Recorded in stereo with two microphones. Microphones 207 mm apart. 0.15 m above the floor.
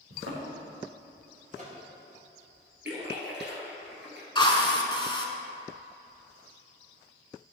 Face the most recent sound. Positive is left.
turn(degrees=25)  # may be behind; listen again after turning